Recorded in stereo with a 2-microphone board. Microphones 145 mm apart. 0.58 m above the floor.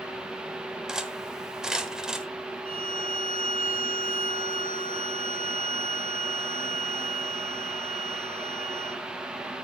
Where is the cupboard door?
No cupboard door in this recording.